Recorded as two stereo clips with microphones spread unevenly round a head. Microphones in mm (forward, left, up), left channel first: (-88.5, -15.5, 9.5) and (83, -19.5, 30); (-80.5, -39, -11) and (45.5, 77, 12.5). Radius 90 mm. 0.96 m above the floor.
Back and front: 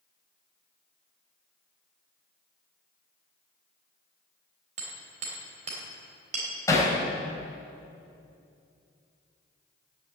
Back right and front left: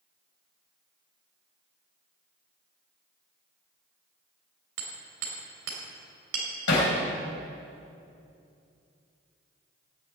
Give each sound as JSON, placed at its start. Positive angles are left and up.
{"t": 4.8, "sound": "hammering", "azimuth_deg": 50, "distance_m": 3.5}
{"t": 6.7, "sound": "hammering", "azimuth_deg": -105, "distance_m": 3.5}